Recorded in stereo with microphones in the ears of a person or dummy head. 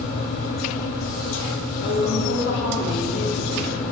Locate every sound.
0.0 s a fan: 55° left (ahead or behind), 2.5 m
1.8 s a woman speaking: 65° left (ahead or behind), 3.5 m